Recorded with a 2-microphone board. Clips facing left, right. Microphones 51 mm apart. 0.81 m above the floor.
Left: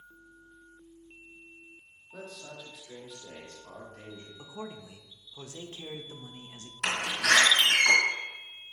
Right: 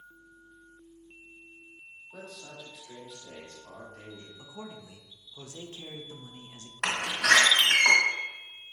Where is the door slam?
70° right (ahead or behind), 1.8 m.